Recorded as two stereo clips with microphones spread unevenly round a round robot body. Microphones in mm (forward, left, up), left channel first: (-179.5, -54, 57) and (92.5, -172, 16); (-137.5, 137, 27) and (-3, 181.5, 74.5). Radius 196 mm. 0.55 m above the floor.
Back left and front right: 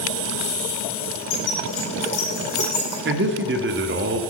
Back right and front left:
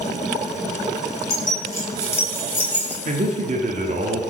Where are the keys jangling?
130° left, 5.5 m; by 3.0 s 115° left, 5 m.